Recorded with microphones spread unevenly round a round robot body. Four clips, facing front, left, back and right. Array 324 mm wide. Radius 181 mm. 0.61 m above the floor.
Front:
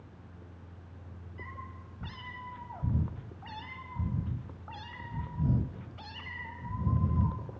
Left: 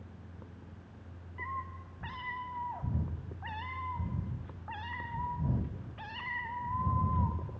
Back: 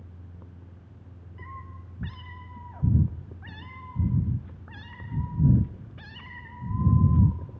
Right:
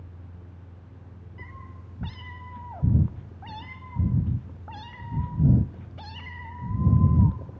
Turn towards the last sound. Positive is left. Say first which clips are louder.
# left 8 dB, back 2 dB
turn(degrees=-130)